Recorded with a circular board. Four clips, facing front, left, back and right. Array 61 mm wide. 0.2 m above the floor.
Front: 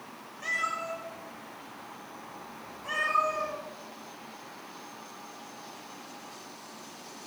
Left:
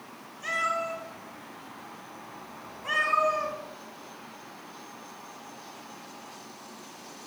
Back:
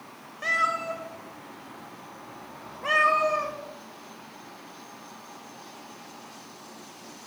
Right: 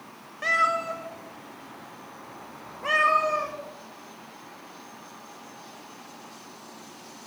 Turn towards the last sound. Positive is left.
turn(degrees=-140)